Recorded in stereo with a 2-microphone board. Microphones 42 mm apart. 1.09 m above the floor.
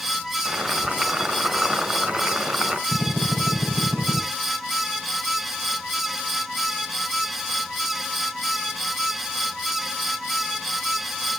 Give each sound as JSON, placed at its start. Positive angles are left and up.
{"t": 0.5, "sound": "boiling", "side_deg": -30, "distance_m": 4.5}
{"t": 2.9, "sound": "a drill", "side_deg": -80, "distance_m": 6.0}